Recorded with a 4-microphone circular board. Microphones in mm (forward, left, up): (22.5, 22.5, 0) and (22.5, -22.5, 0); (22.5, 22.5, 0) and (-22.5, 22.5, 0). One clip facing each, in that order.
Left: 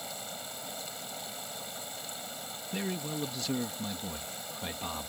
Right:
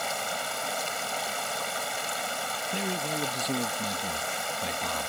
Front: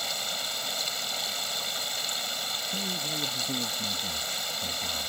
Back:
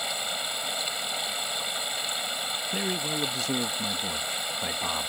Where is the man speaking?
170° right.